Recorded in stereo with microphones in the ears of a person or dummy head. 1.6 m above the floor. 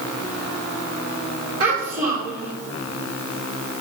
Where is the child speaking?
40° right (ahead or behind), 2.5 m.